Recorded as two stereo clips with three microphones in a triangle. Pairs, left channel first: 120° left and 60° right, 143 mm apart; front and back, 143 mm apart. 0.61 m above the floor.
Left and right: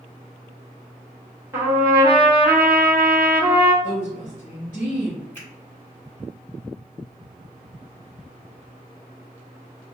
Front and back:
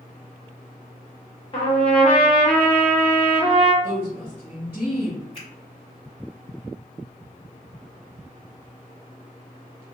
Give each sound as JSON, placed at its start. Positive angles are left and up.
{"t": 1.5, "sound": "a trumpet", "azimuth_deg": 0, "distance_m": 1.4}
{"t": 3.8, "sound": "a woman speaking", "azimuth_deg": 110, "distance_m": 1.4}
{"t": 5.3, "sound": "a finger snap", "azimuth_deg": 50, "distance_m": 1.6}